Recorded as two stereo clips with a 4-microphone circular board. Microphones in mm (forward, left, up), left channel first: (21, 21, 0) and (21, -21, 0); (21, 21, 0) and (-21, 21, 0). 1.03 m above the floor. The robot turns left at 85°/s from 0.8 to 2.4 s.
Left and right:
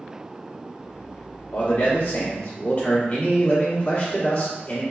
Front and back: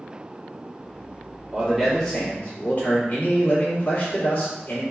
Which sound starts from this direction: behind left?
A man speaking, at 1.5 s.